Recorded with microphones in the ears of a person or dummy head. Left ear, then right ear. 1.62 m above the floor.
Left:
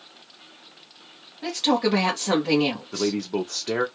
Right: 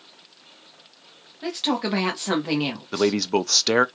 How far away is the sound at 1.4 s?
About 1.5 m.